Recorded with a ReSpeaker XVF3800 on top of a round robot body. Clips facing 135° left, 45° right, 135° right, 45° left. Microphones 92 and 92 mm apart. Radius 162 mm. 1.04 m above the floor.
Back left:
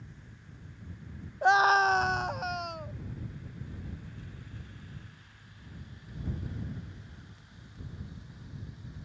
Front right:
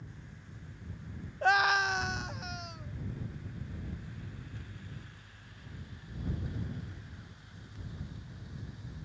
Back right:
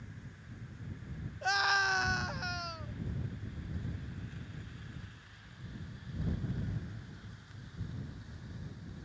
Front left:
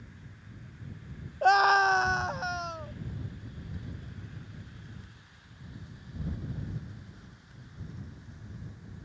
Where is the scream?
60° left; by 3.0 s 105° left.